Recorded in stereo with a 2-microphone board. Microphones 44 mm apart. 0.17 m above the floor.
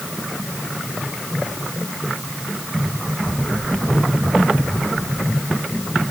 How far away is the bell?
No bell in this recording.